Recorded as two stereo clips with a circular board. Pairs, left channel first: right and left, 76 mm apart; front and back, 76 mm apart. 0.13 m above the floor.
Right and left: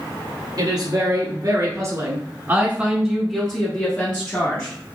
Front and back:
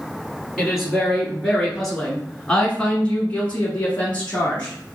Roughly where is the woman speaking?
Left.